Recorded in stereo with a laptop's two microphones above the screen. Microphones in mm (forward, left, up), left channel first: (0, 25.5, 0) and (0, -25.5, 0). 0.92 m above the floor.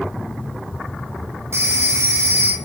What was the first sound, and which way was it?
A phone ringing, 70° right (ahead or behind).